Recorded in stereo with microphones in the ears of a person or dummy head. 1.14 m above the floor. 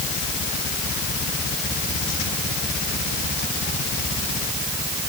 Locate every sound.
Only background noise.